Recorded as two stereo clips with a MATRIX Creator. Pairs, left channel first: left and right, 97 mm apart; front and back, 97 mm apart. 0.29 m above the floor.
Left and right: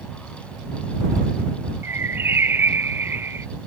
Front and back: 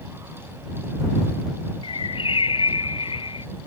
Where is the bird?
25° right.